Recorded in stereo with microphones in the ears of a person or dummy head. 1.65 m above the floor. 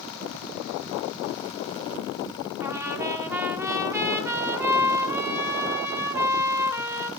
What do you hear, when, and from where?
2.6 s a trumpet: 10° right (ahead or behind), 1.3 m